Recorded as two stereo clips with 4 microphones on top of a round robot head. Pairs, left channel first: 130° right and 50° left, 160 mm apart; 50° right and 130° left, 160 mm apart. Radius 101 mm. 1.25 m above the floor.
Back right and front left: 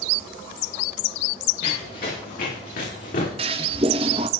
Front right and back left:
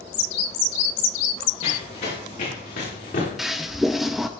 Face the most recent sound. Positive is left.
turn(degrees=40)